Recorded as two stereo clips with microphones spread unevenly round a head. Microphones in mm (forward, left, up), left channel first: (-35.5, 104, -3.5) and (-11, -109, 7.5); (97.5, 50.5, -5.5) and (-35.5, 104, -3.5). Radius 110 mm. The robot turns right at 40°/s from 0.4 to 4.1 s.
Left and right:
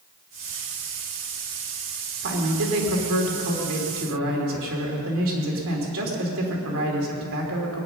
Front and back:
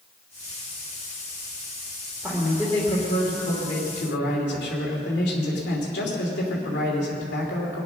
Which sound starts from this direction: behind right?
A man speaking, at 2.2 s.